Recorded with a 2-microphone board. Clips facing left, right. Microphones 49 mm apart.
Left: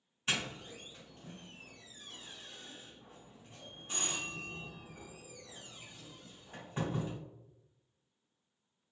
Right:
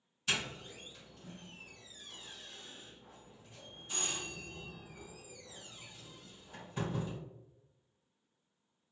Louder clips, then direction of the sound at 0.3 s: Even; 30° left (ahead or behind).